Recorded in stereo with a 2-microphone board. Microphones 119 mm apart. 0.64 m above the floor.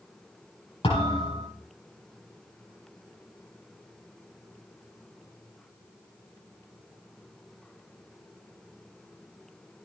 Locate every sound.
0.8 s a thud: 45° left (ahead or behind), 7 m